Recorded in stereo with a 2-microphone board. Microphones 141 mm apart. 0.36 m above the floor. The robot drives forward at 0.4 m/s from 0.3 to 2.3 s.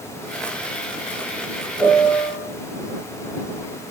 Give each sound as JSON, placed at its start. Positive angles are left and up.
{"t": 1.8, "sound": "a piano", "side_deg": -10, "distance_m": 1.5}